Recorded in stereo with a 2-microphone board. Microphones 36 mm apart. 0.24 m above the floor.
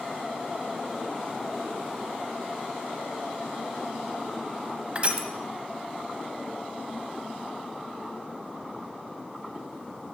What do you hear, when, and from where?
5.0 s crushing: 35° right (ahead or behind), 0.9 m